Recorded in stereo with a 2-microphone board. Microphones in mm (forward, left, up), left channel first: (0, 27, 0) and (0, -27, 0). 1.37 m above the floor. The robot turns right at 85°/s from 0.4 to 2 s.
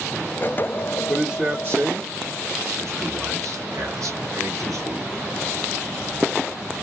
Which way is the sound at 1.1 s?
5° left (ahead or behind).